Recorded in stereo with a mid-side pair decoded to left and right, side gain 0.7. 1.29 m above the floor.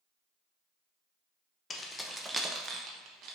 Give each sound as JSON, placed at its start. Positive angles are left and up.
{"t": 1.7, "sound": "keys jangling", "azimuth_deg": 25, "distance_m": 0.7}